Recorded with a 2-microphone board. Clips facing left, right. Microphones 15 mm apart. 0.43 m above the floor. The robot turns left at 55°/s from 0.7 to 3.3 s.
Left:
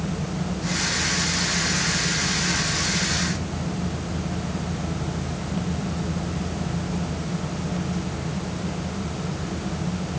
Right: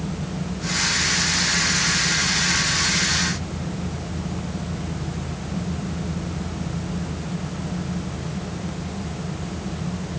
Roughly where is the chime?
No chime in this recording.